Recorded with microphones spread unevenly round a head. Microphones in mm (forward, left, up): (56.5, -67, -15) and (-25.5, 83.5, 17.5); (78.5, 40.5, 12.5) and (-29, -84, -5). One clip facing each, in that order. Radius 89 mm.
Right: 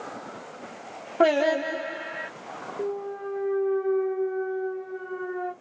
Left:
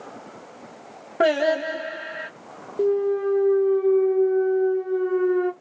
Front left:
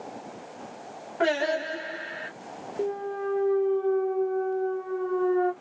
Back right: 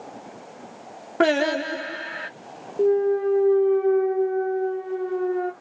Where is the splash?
No splash in this recording.